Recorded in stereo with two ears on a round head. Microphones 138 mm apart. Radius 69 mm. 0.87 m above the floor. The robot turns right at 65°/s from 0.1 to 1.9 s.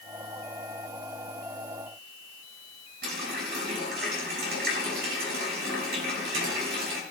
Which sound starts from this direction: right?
A running tap, at 3.0 s.